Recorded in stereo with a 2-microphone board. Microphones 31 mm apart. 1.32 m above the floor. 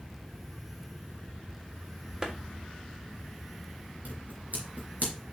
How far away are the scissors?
About 3.5 m.